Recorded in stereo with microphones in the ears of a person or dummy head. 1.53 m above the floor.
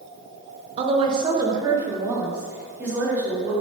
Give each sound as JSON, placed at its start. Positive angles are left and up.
{"t": 0.8, "sound": "a woman speaking", "side_deg": -35, "distance_m": 1.4}